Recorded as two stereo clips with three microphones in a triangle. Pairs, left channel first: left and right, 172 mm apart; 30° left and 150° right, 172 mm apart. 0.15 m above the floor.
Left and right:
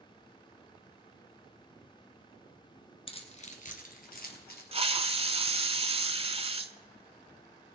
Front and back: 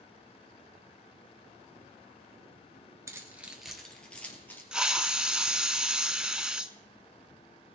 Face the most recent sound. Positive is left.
turn(degrees=-65)